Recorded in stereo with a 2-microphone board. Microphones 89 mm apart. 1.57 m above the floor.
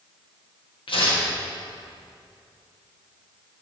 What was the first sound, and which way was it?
Tearing paper, 80° left.